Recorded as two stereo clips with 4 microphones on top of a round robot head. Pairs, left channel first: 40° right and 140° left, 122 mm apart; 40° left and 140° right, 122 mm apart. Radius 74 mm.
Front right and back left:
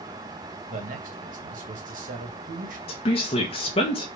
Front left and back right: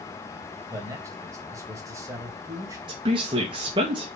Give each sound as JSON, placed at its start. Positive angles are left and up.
{"t": 0.7, "sound": "a man speaking", "azimuth_deg": 155, "distance_m": 2.0}
{"t": 2.9, "sound": "a woman speaking", "azimuth_deg": -85, "distance_m": 1.4}